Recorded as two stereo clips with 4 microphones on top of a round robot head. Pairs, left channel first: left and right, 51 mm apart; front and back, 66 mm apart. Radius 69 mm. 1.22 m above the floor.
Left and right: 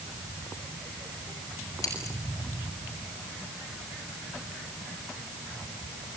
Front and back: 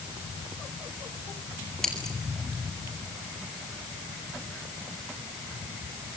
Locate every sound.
1.8 s scissors: 80° left, 9.5 m